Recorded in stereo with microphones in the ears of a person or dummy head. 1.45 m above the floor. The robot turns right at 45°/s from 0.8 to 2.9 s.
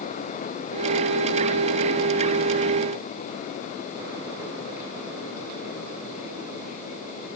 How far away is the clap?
I don't hear a clap.